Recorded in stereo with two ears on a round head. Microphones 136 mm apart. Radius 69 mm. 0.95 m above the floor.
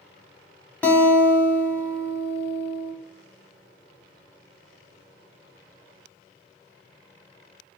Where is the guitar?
10° left (ahead or behind), 1.0 m.